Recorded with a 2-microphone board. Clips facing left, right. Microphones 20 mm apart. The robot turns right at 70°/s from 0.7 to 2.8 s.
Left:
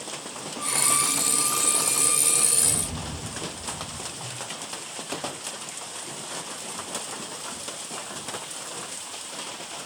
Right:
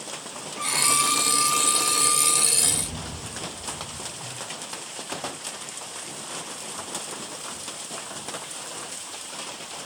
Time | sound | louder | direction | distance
0.6 | a violin | right 3 dB | 135° right | 2.5 m
2.5 | a rattle | right 1 dB | 15° left (ahead or behind) | 1.6 m
4.1 | a whoosh | even | 75° right (ahead or behind) | 2.5 m